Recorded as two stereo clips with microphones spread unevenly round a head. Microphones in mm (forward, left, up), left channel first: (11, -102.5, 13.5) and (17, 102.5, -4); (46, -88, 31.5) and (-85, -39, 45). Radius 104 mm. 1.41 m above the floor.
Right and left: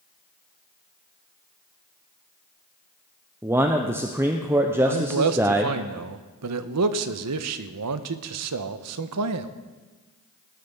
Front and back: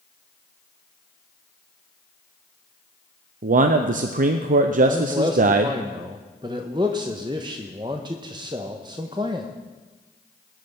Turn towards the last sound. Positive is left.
turn(degrees=90)